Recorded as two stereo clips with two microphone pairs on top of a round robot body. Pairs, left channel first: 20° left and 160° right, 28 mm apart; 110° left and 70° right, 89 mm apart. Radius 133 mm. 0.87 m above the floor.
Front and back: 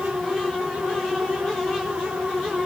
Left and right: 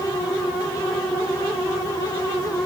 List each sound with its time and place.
Only background noise.